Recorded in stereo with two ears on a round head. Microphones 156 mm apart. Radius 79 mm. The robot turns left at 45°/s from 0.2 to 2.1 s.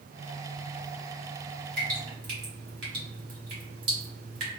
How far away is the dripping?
About 1.5 m.